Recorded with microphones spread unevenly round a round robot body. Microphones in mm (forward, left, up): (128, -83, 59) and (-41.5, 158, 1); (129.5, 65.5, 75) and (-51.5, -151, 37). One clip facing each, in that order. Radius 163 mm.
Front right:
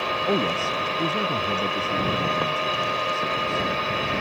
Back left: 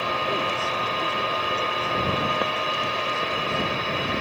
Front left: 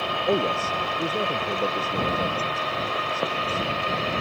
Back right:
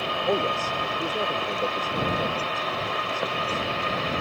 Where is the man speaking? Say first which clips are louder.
Front right 9 dB, front left 2 dB; 30° right.